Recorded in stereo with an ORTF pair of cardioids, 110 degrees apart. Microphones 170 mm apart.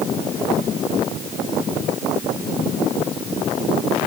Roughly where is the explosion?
I don't hear an explosion.